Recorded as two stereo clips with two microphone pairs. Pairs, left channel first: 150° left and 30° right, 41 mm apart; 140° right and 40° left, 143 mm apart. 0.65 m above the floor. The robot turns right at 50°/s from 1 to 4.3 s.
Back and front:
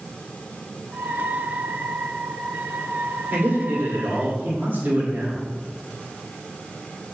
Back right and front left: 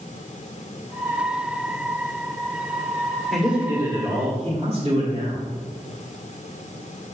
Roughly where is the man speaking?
Ahead right.